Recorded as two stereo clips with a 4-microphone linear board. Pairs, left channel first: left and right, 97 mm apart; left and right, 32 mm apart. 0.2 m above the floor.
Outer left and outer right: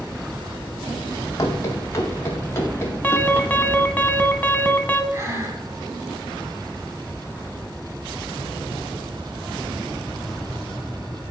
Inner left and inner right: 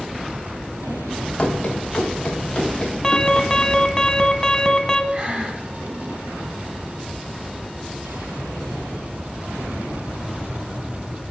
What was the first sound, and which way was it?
Running footsteps, 35° left (ahead or behind).